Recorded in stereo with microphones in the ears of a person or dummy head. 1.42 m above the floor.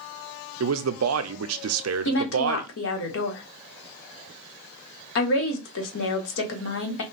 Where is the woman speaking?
60° left (ahead or behind), 1.2 m.